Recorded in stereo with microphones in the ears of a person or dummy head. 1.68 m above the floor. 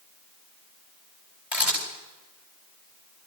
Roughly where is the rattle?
No rattle in this recording.